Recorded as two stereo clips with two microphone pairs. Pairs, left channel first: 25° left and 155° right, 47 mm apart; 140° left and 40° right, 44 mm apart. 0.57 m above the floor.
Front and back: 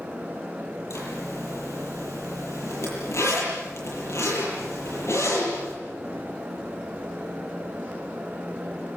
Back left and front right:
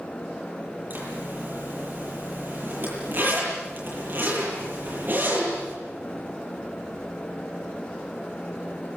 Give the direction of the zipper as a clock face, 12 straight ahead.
12 o'clock.